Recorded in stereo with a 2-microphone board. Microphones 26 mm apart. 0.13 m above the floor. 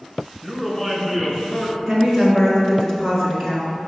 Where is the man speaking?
5° left (ahead or behind), 1.6 m; by 1.8 s 25° left (ahead or behind), 1.7 m.